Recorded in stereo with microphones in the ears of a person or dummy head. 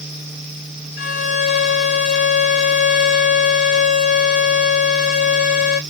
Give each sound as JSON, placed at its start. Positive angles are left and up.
{"t": 1.0, "sound": "a violin", "side_deg": 60, "distance_m": 0.7}